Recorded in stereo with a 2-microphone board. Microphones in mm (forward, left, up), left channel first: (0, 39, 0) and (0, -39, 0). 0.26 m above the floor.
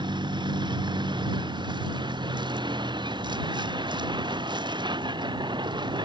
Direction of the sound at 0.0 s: 75° right (ahead or behind).